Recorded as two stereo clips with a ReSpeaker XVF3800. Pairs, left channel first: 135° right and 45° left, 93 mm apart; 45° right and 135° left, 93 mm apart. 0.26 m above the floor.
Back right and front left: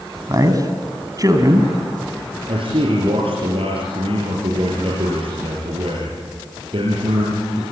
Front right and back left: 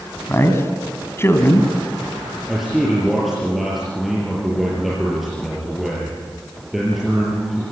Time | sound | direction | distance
0.3 | a man speaking | 10° left | 2.5 m
2.5 | a man speaking | 45° left | 5.5 m